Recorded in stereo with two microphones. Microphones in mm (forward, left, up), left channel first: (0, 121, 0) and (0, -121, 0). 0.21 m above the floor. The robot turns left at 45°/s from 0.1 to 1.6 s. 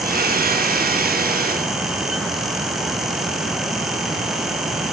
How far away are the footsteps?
I don't hear footsteps.